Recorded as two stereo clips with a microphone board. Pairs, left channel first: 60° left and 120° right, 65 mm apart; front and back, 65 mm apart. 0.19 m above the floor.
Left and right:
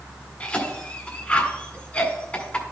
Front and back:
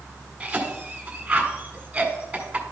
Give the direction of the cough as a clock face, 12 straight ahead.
8 o'clock.